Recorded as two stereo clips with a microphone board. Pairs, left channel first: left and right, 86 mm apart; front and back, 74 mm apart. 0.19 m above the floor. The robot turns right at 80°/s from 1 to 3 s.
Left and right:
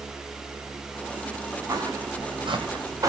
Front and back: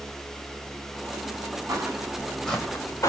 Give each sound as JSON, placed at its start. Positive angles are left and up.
{"t": 1.7, "sound": "footsteps", "azimuth_deg": -145, "distance_m": 5.5}